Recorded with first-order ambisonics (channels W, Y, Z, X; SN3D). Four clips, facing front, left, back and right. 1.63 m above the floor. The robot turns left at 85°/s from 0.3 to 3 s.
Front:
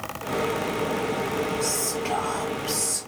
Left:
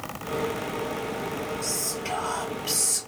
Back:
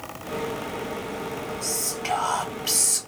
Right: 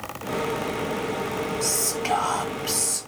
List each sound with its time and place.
1.6 s whispering: 80° right, 1.2 m; by 3.0 s 160° left, 1.2 m